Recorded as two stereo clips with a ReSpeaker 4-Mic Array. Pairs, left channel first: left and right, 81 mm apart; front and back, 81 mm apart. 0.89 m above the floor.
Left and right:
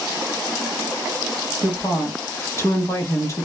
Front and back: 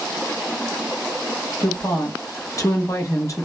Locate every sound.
1.6 s a woman speaking: 40° left, 0.8 m